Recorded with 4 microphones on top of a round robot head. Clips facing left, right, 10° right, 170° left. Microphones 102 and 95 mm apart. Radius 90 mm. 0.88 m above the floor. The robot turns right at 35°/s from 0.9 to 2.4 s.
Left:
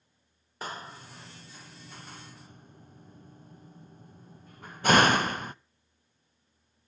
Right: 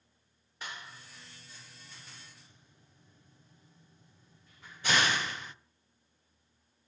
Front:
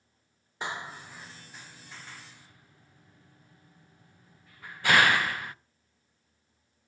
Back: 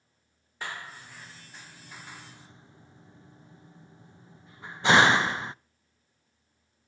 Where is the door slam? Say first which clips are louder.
Left 6 dB, front 3 dB; 55° left, 0.5 m; by 5.5 s 105° left, 0.5 m.